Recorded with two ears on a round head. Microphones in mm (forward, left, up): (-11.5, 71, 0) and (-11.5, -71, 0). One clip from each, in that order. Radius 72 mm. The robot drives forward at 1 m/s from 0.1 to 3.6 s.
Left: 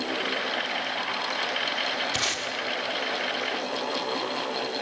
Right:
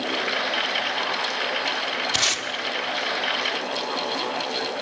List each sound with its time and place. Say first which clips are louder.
2.1 s tape being pulled: right 5 dB; 35° right (ahead or behind), 1.8 m; by 2.5 s 30° right (ahead or behind), 2 m